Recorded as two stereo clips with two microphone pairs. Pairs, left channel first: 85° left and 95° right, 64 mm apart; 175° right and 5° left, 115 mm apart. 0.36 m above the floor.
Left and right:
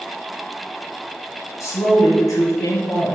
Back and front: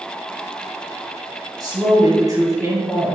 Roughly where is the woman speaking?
Ahead left.